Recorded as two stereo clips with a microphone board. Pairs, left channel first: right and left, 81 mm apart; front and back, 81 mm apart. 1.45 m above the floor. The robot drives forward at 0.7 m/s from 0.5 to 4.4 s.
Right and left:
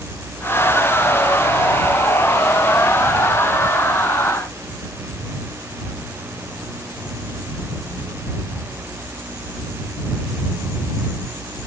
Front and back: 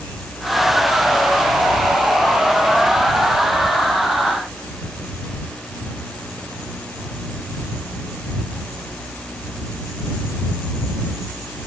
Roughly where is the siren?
No siren in this recording.